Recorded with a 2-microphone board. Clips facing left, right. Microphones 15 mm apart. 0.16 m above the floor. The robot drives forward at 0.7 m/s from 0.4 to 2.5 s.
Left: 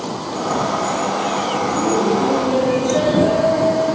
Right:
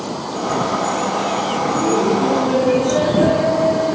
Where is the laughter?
25° right (ahead or behind), 1.6 m; by 4.0 s 20° right (ahead or behind), 1.8 m.